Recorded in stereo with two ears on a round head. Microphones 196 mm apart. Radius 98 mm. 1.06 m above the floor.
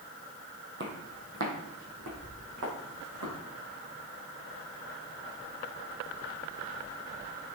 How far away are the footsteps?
About 2.5 m.